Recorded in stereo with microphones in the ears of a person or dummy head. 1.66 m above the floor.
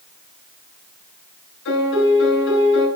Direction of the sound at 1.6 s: 80° left.